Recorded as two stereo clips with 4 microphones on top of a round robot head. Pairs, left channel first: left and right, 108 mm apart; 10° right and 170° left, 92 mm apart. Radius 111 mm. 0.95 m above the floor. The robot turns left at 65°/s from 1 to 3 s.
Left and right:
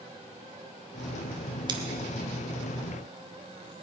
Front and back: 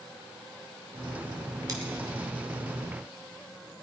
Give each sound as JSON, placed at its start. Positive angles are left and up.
{"t": 1.7, "sound": "scissors", "azimuth_deg": -135, "distance_m": 1.5}